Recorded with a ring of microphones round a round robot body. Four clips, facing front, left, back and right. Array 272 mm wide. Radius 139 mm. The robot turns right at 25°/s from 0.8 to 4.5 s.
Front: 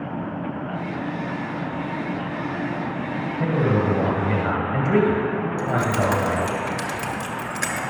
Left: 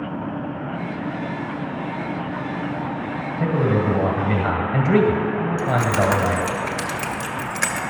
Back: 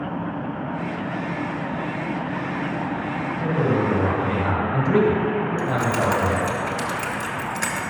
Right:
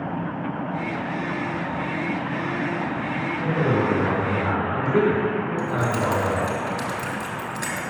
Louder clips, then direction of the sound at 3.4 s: Left 2 dB, even; 55° left.